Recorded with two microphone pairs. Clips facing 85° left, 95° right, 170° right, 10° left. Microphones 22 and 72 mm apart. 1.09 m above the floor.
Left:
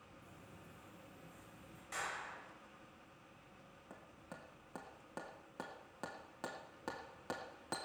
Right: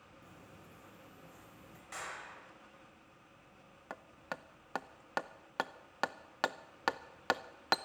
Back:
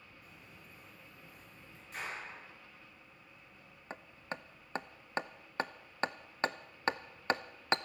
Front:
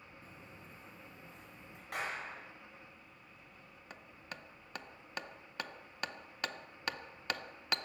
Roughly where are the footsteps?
Ahead right.